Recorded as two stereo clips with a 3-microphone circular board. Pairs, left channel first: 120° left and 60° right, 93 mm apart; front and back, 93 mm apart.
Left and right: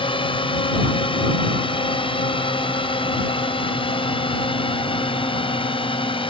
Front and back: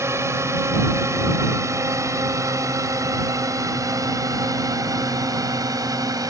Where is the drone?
120° left; by 6.3 s 130° left.